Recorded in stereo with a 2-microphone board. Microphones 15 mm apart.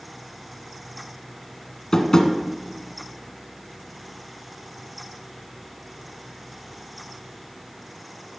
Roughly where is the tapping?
Left.